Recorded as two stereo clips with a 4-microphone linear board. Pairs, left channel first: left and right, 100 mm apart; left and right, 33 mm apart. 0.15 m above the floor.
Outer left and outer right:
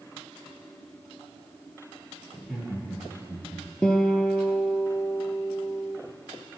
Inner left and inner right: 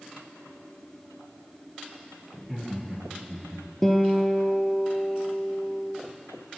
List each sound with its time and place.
2.3 s laughter: 5° right (ahead or behind), 3 m; by 3.7 s 10° right (ahead or behind), 2.5 m
3.8 s a guitar: 10° left (ahead or behind), 0.7 m